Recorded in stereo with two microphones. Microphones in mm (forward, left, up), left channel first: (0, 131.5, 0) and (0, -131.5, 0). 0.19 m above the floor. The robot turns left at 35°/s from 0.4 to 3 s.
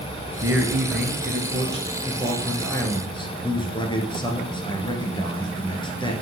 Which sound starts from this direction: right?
A man speaking, at 0.4 s.